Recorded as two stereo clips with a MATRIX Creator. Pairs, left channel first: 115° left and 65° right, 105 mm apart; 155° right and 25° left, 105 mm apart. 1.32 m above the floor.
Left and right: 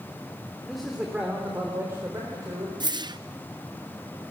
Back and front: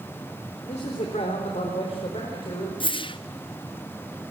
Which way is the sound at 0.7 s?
160° right.